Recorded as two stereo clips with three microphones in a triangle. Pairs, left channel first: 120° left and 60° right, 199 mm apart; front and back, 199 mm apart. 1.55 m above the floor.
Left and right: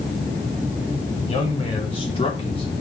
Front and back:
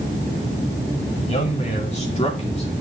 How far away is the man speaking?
About 4 m.